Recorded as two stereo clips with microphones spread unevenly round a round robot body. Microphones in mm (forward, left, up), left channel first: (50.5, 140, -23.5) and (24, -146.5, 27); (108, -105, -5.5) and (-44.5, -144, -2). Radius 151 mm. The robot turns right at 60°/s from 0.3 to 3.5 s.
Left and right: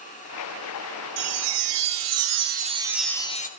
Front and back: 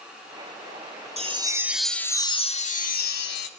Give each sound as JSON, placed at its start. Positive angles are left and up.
{"t": 1.2, "sound": "a chime", "azimuth_deg": -115, "distance_m": 2.5}